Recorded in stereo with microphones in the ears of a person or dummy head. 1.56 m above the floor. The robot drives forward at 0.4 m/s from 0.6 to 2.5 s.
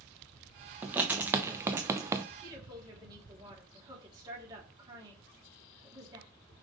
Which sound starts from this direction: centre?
Writing, at 0.8 s.